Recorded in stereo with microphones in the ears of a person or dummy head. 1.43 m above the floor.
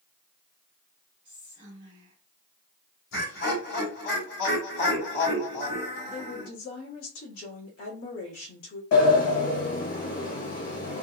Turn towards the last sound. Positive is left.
turn(degrees=55)  # may be behind; listen again after turning